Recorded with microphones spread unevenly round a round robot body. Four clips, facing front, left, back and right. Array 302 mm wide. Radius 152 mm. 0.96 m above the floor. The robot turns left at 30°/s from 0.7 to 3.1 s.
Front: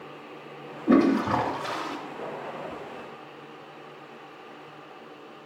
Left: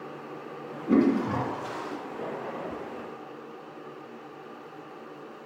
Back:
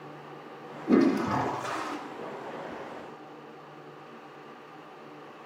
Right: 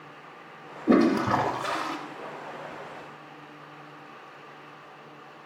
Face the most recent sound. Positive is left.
turn(degrees=-135)